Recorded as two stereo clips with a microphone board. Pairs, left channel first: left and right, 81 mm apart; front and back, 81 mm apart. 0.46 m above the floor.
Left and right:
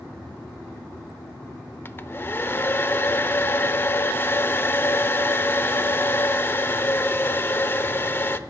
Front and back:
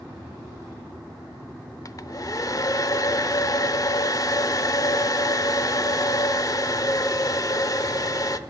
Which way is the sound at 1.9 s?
35° left.